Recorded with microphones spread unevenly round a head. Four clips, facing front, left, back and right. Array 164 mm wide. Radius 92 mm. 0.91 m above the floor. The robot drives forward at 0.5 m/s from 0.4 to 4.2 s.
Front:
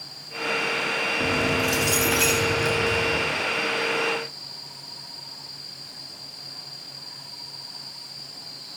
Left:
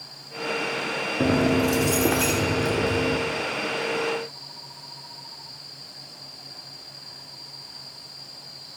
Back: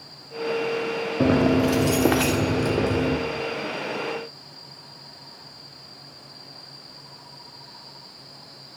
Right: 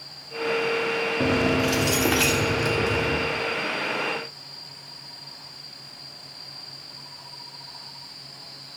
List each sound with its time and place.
1.2 s keys jangling: 165° left, 1.1 m; by 3.2 s 170° left, 2 m